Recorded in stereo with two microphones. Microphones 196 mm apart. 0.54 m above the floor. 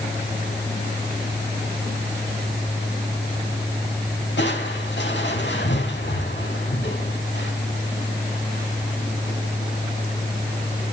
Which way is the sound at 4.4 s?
70° left (ahead or behind).